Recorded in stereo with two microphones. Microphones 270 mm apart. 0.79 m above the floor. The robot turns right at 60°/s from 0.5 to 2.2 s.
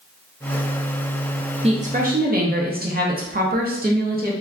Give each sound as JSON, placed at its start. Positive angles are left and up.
{"t": 1.6, "sound": "a woman speaking", "azimuth_deg": -140, "distance_m": 0.5}